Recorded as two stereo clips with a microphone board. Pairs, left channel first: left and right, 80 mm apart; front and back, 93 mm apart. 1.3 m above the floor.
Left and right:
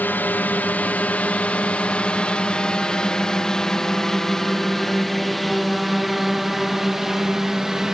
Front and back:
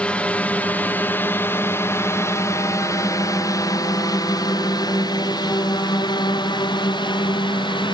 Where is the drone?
60° left; by 8.0 s 5° right.